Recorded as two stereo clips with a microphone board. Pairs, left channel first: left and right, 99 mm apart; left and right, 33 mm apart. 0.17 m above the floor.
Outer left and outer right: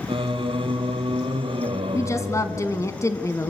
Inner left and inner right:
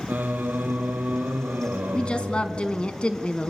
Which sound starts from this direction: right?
Singing, at 0.1 s.